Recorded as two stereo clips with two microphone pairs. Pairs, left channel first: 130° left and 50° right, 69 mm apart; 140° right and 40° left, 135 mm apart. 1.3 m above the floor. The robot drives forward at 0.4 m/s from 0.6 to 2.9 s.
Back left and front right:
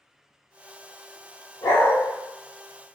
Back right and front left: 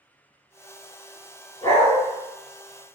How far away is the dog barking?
About 1.6 m.